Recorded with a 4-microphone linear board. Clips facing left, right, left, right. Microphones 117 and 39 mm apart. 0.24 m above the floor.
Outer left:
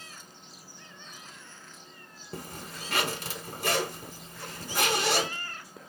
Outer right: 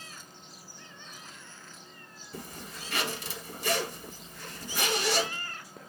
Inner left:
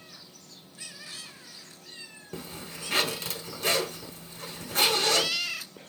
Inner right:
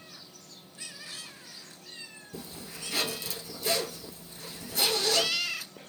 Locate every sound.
2.3 s a zipper: 60° left (ahead or behind), 0.7 m